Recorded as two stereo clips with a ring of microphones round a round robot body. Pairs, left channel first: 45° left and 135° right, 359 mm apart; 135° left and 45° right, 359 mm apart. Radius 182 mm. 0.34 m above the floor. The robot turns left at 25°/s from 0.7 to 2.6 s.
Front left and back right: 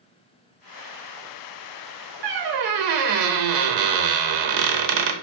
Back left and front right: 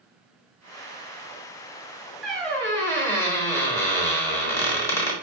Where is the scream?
No scream in this recording.